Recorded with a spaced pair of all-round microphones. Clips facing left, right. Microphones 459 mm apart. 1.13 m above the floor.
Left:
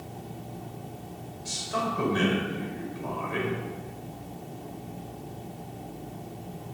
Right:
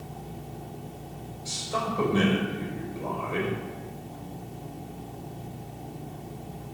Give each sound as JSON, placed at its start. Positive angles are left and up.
{"t": 1.4, "sound": "a man speaking", "side_deg": 30, "distance_m": 5.5}